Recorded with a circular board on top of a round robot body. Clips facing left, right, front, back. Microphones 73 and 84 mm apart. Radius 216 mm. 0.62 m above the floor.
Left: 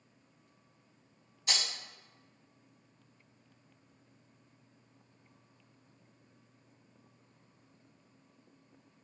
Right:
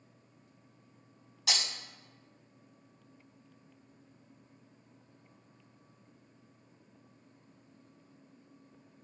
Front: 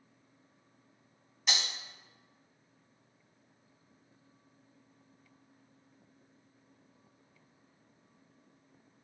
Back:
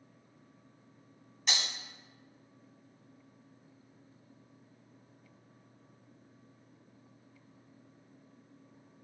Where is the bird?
I don't hear a bird.